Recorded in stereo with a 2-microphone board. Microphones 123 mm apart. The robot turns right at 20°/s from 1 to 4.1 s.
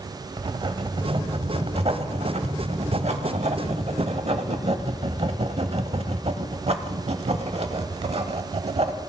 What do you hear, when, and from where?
0.4 s writing: 130° right, 0.7 m; by 9.0 s 65° right, 0.7 m